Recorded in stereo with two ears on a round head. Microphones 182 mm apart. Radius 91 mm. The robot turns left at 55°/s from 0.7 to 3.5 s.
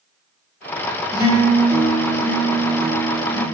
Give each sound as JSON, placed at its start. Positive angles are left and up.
{"t": 1.1, "sound": "a guitar", "side_deg": 20, "distance_m": 1.2}